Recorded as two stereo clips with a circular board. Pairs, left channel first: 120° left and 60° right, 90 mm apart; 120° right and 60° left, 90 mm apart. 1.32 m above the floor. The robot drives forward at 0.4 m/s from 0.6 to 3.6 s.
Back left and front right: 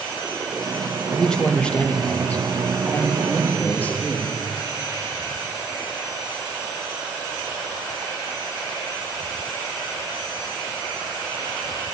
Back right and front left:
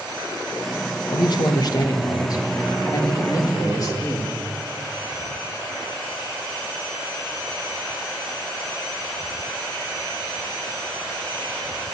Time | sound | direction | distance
1.1 | a man speaking | 155° right | 0.9 m